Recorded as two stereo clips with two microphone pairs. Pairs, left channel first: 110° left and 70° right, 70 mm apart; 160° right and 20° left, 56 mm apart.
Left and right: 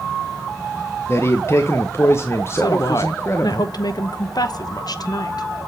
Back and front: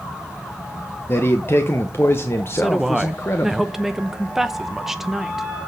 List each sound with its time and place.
1.1 s a man speaking: 160° left, 0.8 m
2.6 s a woman speaking: 105° left, 0.8 m